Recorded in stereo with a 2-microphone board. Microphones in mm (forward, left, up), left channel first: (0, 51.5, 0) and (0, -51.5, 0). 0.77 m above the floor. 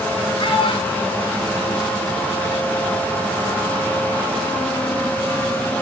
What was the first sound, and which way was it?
A child speaking, 60° left (ahead or behind).